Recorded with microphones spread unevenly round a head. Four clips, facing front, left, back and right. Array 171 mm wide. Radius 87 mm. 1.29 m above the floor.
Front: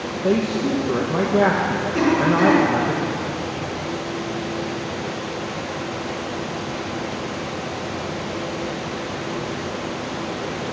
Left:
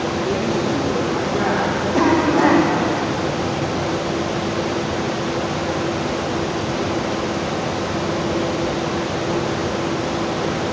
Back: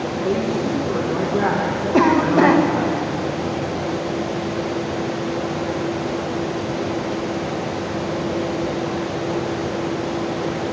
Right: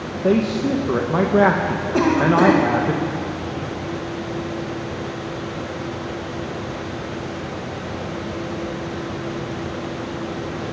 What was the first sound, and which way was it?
A man speaking, 60° right.